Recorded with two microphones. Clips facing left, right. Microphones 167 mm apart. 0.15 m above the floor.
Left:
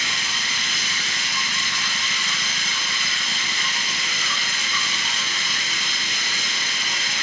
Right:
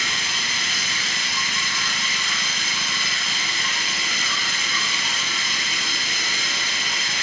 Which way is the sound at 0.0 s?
35° right (ahead or behind).